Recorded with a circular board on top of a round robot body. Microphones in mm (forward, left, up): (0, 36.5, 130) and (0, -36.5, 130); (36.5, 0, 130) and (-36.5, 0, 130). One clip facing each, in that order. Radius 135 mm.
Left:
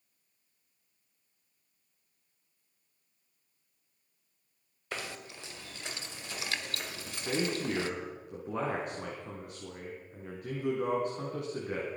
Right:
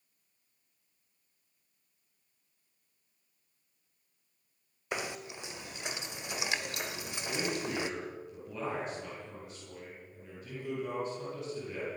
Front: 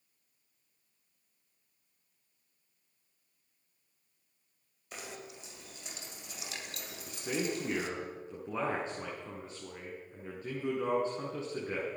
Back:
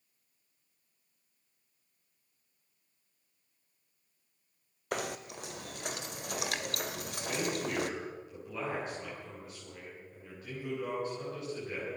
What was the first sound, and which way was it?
Knocking, 160° right.